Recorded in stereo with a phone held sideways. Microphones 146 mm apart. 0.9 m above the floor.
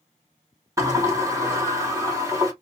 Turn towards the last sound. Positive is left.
turn(degrees=-20)  # may be behind; listen again after turning